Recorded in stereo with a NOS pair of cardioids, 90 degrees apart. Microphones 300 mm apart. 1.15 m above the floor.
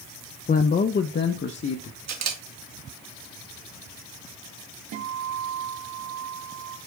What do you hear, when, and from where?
0.5 s a man speaking: 30° left, 0.6 m; by 2.0 s 40° left, 1.3 m
2.1 s a camera shutter: 60° right, 1.8 m
4.9 s a guitar: 65° right, 1.5 m